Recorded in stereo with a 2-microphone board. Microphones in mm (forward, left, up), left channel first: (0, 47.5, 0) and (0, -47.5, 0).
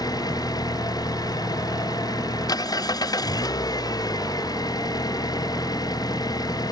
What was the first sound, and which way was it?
An engine running, 45° left (ahead or behind).